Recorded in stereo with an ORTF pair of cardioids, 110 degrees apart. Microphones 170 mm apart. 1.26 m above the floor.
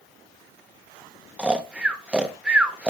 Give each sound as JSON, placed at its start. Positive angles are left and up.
{"t": 1.4, "sound": "snoring", "azimuth_deg": -5, "distance_m": 1.0}